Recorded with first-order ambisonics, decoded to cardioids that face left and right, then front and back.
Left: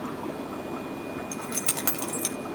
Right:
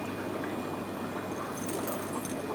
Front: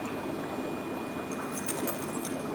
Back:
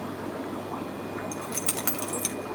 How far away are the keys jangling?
About 3 m.